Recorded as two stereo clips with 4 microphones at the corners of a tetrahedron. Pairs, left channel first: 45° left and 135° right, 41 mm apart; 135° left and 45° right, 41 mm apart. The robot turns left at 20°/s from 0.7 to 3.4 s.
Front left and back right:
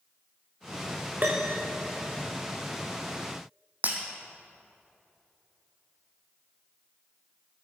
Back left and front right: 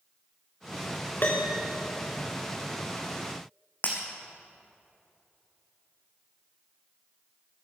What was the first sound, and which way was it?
A piano, 175° left.